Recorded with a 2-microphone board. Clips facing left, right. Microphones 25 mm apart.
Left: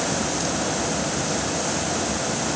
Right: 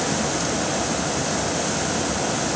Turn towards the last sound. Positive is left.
No sound to turn to.